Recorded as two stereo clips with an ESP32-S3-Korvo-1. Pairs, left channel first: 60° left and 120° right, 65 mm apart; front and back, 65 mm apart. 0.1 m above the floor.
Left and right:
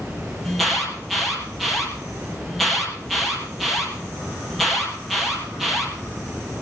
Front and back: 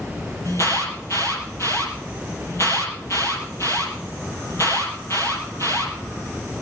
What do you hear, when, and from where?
0.5 s an alarm: 25° right, 3.5 m